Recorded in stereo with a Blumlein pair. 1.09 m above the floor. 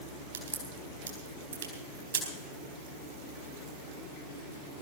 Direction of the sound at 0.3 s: 70° right.